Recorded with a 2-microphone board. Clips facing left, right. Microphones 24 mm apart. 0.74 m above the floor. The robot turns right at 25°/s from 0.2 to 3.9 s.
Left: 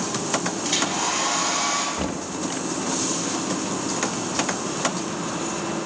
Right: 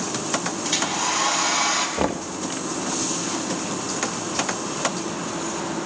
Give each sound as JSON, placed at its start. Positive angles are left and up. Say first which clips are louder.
{"t": 0.6, "sound": "a hair dryer", "louder": "right 1 dB", "azimuth_deg": 180, "distance_m": 4.5}
{"t": 2.0, "sound": "knocking", "louder": "right 3 dB", "side_deg": -45, "distance_m": 1.2}